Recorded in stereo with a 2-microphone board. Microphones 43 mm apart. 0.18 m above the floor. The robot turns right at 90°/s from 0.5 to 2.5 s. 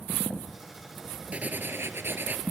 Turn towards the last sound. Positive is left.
turn(degrees=-40)